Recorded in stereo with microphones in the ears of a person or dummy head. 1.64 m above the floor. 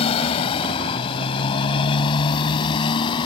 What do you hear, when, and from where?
0.0 s a motorcycle: 30° left (ahead or behind); by 3.3 s 25° left (ahead or behind)